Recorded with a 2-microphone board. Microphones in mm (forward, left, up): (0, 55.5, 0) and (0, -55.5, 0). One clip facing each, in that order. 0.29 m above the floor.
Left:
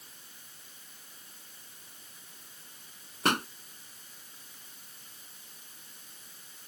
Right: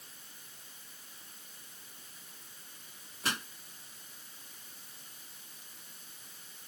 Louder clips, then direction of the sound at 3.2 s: Left 9 dB; 65° left (ahead or behind).